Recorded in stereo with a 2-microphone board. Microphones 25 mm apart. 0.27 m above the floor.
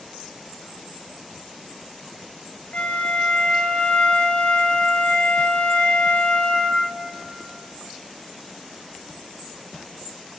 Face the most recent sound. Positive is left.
turn(degrees=65)  # may be behind; listen again after turning